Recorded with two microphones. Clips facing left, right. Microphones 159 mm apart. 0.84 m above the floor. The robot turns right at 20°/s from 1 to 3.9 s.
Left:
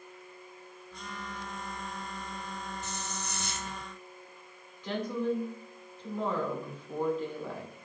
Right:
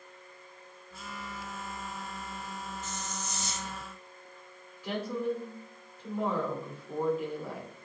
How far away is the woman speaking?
About 2 m.